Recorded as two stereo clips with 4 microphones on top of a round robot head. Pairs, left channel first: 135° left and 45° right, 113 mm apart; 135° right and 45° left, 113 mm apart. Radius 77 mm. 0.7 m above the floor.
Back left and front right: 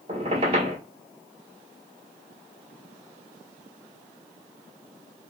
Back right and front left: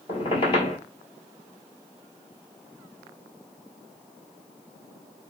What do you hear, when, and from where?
0.1 s a squeak: 90° right, 1.3 m